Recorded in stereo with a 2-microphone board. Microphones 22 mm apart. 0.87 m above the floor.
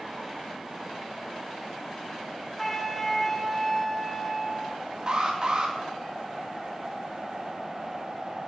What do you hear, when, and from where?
2.6 s a flute: 10° left (ahead or behind), 1.0 m
5.1 s an alarm: 40° right (ahead or behind), 2 m